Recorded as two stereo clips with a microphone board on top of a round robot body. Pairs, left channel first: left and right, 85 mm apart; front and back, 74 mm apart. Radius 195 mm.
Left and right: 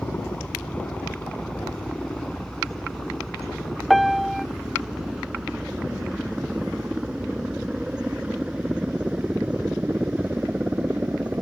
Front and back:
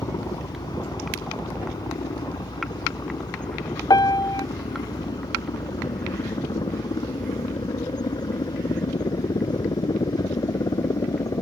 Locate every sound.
0.0 s a helicopter: 15° left; by 11.4 s 15° right
3.9 s a piano: straight ahead